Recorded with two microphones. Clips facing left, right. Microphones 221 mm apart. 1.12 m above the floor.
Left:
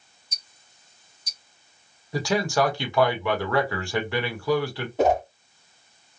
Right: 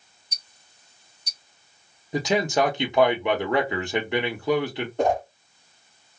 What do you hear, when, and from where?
0.3 s ticking: 65° right (ahead or behind), 0.9 m
2.1 s a man speaking: 20° right (ahead or behind), 0.8 m
5.0 s a whoosh: 5° left (ahead or behind), 0.9 m